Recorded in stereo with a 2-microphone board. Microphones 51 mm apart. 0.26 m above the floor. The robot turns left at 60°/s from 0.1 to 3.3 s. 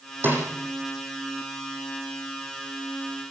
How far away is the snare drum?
About 8 m.